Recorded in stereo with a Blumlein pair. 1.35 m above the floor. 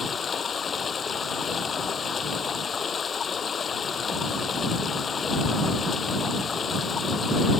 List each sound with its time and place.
0.0 s running water: 20° left